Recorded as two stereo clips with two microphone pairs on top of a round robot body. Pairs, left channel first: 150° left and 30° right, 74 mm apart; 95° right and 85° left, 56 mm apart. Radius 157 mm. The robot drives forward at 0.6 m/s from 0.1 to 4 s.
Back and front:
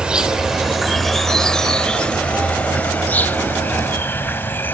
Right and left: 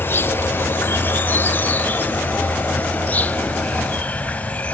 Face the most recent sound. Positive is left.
turn(degrees=-150)